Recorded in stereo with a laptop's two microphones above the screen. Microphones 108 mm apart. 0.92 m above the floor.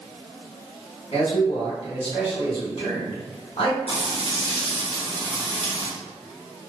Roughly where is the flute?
I don't hear a flute.